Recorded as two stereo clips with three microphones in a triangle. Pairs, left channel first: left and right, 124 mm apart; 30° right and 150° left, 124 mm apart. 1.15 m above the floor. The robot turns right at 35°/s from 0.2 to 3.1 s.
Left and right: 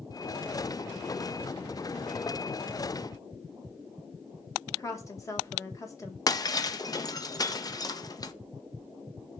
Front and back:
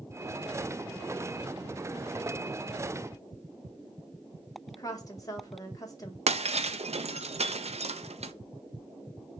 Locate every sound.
4.7 s a woman speaking: 25° left, 1.6 m
6.3 s breaking glass: 140° left, 0.5 m